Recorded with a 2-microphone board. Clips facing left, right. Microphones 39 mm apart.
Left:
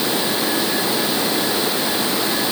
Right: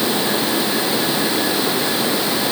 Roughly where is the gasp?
I don't hear a gasp.